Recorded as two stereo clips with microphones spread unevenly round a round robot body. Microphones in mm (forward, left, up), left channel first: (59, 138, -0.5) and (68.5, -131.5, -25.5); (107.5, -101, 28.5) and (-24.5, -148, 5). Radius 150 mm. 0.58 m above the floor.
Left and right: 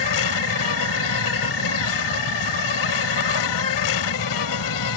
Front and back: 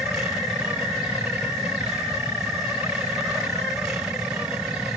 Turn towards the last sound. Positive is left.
turn(degrees=115)